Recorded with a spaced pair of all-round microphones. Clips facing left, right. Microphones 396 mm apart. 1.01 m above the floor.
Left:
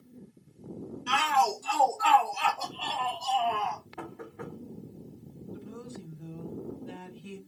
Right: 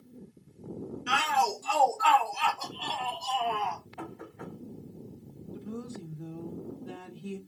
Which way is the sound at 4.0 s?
75° left (ahead or behind).